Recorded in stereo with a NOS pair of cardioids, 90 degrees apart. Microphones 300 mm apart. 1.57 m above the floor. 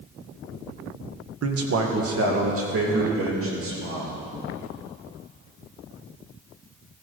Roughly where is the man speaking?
Ahead right.